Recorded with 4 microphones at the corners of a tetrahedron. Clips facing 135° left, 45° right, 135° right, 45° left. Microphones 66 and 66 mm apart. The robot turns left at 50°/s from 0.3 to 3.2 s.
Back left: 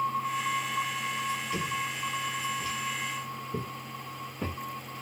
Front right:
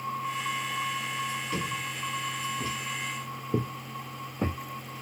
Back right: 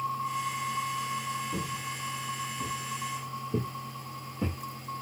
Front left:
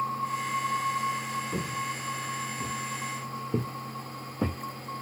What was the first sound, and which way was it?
Footsteps, 20° left.